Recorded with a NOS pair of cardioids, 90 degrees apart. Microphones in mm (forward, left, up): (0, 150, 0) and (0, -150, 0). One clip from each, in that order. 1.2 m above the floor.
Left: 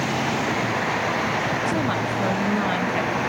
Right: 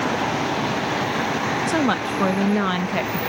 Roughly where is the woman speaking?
Ahead right.